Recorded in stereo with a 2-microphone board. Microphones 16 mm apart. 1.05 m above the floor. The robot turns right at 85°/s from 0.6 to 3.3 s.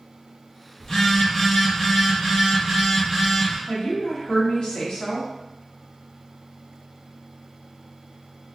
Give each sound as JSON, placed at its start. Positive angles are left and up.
{"t": 0.8, "sound": "a phone buzzing", "azimuth_deg": 130, "distance_m": 1.6}
{"t": 3.7, "sound": "a woman speaking", "side_deg": 65, "distance_m": 1.0}